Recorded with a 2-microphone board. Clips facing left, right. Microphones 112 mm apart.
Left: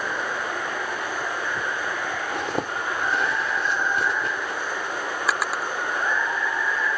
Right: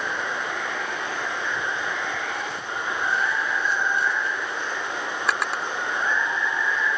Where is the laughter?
No laughter in this recording.